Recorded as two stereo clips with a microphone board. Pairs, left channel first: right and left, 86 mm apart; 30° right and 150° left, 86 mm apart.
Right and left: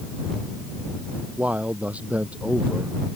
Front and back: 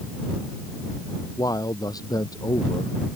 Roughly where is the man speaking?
Ahead.